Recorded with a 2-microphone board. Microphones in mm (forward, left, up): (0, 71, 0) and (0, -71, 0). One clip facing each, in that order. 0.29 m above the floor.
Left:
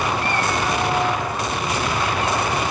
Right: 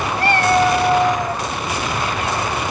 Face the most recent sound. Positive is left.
turn(degrees=-85)